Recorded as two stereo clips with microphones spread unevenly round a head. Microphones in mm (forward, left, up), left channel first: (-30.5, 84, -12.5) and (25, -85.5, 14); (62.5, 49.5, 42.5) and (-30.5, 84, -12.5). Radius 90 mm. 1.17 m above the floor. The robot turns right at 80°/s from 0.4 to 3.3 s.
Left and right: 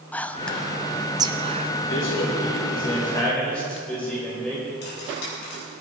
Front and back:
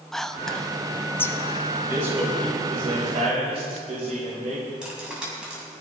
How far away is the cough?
No cough in this recording.